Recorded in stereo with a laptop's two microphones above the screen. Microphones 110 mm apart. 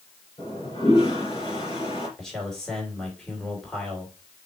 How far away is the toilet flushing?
About 3 m.